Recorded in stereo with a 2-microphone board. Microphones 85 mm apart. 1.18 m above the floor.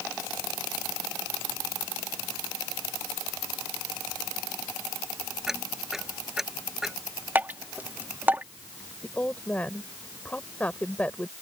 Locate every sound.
5.5 s ticking: 5° right (ahead or behind)
7.3 s dripping: 20° right (ahead or behind)
9.0 s a woman speaking: 15° left (ahead or behind)